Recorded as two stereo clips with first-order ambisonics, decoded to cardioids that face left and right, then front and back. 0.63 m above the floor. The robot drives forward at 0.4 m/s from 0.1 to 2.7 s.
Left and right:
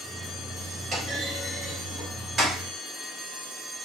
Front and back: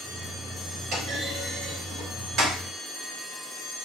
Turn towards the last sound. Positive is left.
turn(degrees=-155)